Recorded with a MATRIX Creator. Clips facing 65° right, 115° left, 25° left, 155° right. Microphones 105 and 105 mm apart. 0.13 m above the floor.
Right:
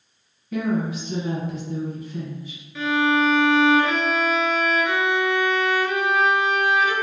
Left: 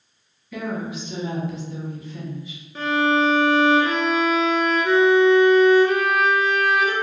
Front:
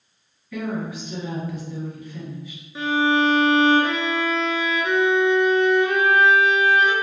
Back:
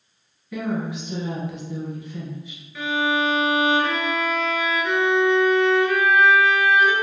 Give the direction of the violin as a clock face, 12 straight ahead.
9 o'clock.